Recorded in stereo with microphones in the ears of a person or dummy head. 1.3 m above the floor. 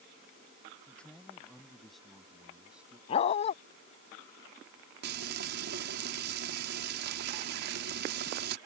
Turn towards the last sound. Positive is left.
turn(degrees=-70)  # may be behind; listen again after turning